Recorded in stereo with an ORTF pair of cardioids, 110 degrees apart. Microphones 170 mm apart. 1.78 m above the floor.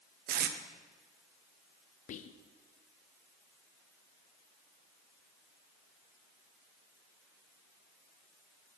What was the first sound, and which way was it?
Tape being pulled, 65° right.